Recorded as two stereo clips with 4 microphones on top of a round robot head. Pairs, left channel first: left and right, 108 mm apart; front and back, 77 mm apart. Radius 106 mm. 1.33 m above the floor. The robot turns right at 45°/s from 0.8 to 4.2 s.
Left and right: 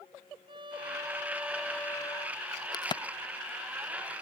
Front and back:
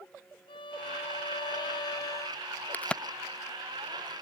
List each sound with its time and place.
0.5 s a violin: 35° right; by 2.4 s 40° left
2.7 s a crack: 60° left; by 4.2 s 130° left